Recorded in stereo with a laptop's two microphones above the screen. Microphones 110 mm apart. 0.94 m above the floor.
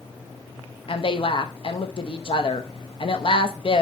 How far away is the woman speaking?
About 0.7 m.